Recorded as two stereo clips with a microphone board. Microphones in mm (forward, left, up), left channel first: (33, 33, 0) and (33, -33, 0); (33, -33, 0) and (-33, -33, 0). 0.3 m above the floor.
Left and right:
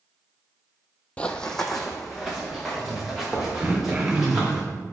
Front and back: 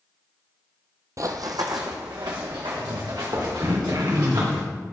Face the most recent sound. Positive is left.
turn(degrees=-150)